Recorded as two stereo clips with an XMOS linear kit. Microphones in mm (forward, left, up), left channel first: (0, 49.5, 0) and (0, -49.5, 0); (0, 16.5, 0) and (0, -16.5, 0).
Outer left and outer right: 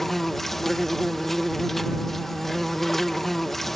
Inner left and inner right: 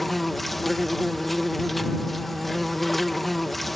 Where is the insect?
5° left (ahead or behind).